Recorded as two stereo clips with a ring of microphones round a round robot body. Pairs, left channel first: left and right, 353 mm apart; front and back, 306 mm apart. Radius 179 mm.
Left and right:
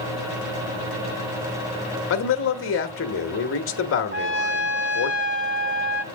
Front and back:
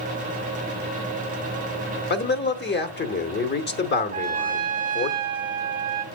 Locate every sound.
2.1 s a man speaking: 45° left, 1.1 m
4.1 s a trumpet: 130° right, 1.0 m